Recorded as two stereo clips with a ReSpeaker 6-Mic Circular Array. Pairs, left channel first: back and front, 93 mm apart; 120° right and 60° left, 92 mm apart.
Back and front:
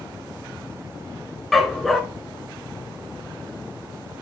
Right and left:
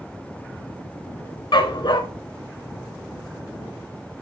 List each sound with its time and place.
1.5 s a dog barking: 90° right, 0.8 m